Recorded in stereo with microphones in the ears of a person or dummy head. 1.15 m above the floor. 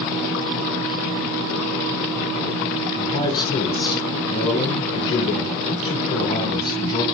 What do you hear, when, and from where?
3.0 s a man speaking: 25° left (ahead or behind), 0.8 m